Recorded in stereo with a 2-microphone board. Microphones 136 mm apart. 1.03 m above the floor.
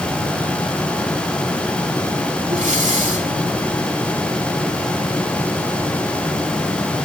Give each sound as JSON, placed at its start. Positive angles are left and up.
{"t": 2.5, "sound": "breathing", "side_deg": -65, "distance_m": 2.0}